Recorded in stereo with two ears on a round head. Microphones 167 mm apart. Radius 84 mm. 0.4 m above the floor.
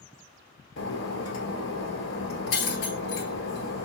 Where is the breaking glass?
80° left, 1.3 m.